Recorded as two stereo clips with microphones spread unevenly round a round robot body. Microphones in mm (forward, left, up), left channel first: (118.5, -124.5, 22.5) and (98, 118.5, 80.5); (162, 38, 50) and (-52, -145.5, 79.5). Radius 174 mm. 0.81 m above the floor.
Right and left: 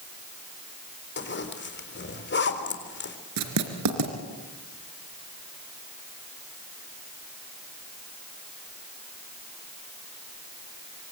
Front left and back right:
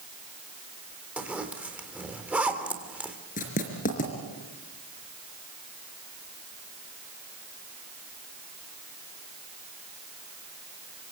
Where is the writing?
110° left, 3 m.